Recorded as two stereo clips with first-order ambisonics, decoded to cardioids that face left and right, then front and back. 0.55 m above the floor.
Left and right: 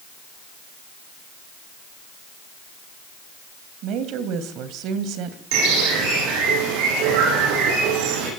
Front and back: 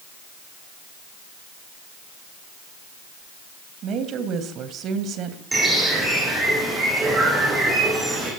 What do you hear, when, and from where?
3.8 s a woman speaking: 130° right, 2.5 m
5.5 s a bird: 100° right, 8.5 m